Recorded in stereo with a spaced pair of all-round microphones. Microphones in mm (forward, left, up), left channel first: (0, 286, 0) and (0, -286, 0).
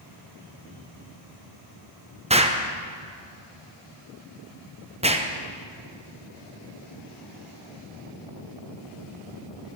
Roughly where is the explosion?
Centre.